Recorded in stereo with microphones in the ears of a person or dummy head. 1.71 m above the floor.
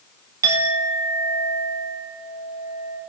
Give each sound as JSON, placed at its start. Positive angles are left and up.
{"t": 0.4, "sound": "a clink", "side_deg": -15, "distance_m": 1.8}